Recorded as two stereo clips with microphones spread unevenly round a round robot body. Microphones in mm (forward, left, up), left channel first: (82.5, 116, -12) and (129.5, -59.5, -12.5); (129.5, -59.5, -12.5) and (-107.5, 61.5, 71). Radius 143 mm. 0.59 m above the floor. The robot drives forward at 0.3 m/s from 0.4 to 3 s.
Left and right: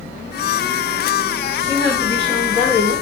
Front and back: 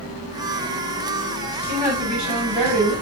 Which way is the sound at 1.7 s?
140° right.